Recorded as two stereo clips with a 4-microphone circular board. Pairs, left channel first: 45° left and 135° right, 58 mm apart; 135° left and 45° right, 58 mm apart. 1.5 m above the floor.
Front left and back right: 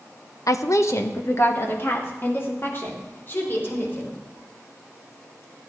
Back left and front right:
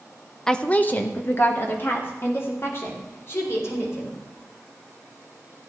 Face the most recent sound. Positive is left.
turn(degrees=95)